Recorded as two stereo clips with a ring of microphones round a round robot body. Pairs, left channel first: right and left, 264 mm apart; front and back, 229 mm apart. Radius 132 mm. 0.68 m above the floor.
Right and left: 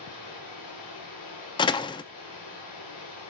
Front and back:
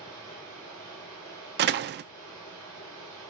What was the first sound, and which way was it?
Running water, 85° right.